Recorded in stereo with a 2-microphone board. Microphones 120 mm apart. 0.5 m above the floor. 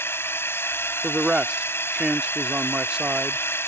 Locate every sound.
0.0 s a drone: 20° left (ahead or behind)
1.0 s a man speaking: 5° right (ahead or behind)